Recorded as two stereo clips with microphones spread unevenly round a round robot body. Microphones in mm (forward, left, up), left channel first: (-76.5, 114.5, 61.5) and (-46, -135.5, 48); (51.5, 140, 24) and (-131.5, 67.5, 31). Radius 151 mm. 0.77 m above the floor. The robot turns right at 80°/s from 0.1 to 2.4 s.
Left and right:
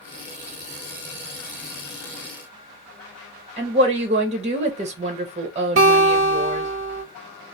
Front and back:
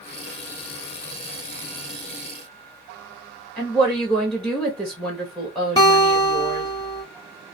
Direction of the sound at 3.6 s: 60° right.